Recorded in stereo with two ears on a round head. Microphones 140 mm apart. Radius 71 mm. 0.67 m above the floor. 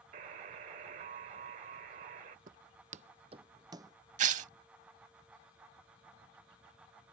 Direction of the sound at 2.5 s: 60° right (ahead or behind).